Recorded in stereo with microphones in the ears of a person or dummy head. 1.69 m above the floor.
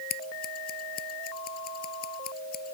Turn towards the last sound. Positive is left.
turn(degrees=45)  # may be behind; listen again after turning